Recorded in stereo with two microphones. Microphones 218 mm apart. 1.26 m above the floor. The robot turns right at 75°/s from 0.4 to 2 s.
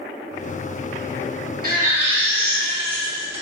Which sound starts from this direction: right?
A baby crying, at 1.6 s.